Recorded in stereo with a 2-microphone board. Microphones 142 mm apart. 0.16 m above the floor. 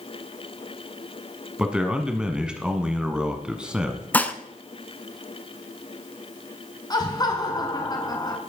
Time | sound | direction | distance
1.6 | a man speaking | 5° right (ahead or behind) | 1.1 m
4.1 | dishes clattering | 10° left (ahead or behind) | 0.9 m
6.9 | laughter | 30° left (ahead or behind) | 1.2 m